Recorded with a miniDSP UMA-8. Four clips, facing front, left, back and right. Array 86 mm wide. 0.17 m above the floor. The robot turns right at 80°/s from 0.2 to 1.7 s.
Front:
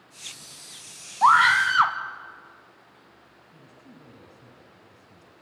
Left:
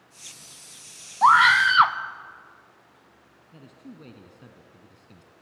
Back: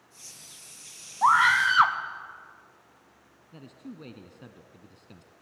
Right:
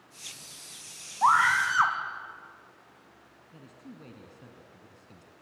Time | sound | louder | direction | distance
1.2 | a scream | left 6 dB, front 3 dB | 50° left | 1.3 m
3.5 | a man speaking | left 3 dB, back 8 dB | 165° left | 1.6 m